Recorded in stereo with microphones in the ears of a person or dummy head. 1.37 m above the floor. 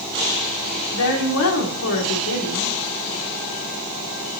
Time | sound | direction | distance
0.9 | a woman speaking | 80° left | 1.2 m